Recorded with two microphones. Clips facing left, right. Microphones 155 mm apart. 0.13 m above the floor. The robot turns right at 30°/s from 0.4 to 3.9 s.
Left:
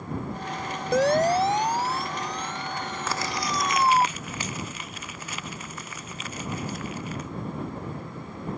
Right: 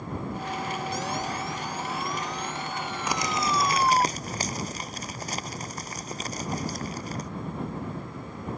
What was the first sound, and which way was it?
A siren, 70° left (ahead or behind).